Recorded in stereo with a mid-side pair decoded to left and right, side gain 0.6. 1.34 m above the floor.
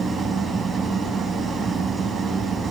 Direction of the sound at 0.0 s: 30° right.